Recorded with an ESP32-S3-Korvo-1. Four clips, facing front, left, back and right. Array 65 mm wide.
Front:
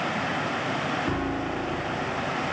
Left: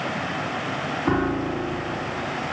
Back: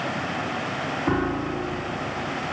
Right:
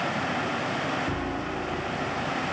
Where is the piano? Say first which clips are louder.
Left 7 dB, back 3 dB; 125° left, 2.5 m.